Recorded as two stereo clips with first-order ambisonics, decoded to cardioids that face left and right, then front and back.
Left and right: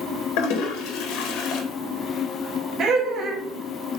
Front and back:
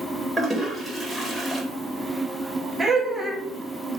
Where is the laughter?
105° right, 0.5 m.